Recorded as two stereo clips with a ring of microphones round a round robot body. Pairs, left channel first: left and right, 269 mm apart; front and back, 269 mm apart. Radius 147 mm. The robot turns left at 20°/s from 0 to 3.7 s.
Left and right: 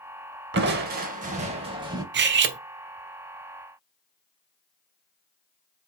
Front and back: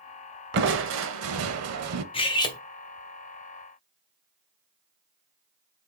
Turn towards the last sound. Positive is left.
turn(degrees=-95)